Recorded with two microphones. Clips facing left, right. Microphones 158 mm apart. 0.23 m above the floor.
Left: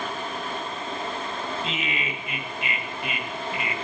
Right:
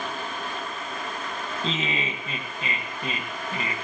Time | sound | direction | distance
1.6 | laughter | 35° right (ahead or behind) | 1.6 m